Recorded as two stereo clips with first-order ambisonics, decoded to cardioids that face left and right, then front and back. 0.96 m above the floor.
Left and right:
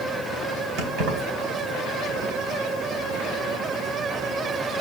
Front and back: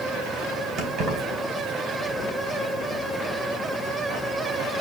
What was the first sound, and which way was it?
Keys jangling, 125° right.